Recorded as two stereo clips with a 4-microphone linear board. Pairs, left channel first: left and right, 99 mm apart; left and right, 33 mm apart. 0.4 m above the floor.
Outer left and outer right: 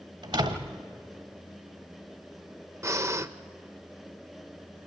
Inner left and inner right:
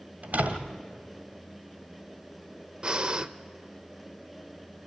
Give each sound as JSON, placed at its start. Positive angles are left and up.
{"t": 0.2, "sound": "a door slam", "side_deg": -60, "distance_m": 1.5}
{"t": 2.8, "sound": "breathing", "side_deg": -30, "distance_m": 0.6}